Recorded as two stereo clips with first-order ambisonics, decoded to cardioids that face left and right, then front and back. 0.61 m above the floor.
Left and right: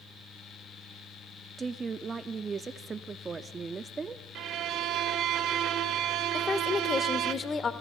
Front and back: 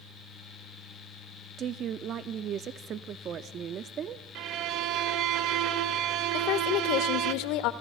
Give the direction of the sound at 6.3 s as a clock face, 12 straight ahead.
11 o'clock.